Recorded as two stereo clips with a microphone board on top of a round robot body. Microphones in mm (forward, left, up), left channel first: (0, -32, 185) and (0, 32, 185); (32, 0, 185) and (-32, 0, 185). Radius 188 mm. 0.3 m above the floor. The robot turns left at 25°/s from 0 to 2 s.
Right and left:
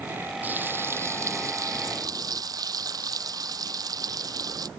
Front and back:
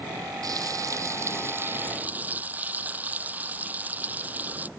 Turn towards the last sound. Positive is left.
turn(degrees=115)